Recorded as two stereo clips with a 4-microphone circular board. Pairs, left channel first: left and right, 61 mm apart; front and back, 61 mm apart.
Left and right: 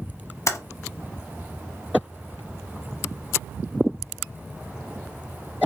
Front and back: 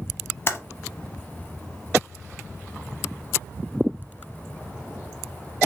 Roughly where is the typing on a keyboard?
Ahead left.